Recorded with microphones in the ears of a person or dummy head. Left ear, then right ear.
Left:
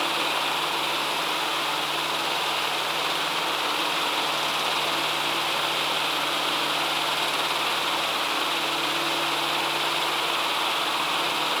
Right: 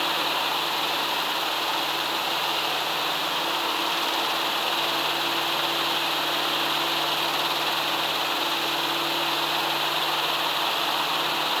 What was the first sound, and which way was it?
Only background noise.